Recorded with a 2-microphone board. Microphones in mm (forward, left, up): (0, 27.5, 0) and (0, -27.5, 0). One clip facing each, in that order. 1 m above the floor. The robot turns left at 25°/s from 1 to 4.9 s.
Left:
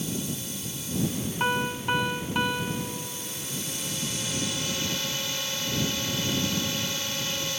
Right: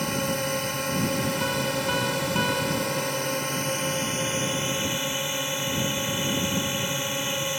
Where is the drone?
60° right; by 7.6 s 160° right.